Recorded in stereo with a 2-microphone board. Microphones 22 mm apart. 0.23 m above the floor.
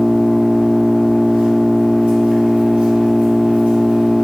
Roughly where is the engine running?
Right.